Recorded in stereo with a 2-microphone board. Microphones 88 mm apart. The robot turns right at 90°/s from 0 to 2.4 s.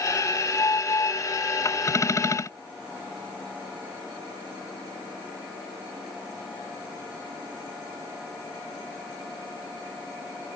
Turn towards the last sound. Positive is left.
No sound to turn to.